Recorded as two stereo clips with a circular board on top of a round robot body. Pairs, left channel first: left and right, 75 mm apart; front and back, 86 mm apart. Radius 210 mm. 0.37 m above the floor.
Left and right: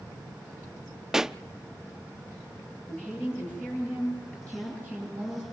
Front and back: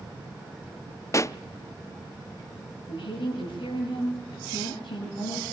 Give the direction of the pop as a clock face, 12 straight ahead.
12 o'clock.